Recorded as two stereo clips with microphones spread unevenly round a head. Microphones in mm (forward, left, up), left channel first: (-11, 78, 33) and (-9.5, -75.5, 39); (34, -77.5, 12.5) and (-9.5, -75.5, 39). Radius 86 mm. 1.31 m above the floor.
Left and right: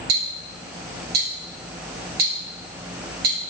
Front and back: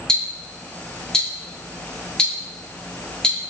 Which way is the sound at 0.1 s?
65° right.